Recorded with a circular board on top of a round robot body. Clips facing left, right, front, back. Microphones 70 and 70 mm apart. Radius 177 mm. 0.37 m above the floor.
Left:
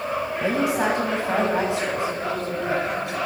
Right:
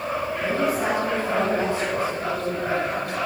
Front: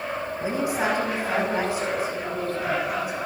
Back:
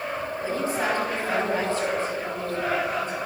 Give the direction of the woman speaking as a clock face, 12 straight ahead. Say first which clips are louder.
Left 2 dB, front 2 dB; 9 o'clock.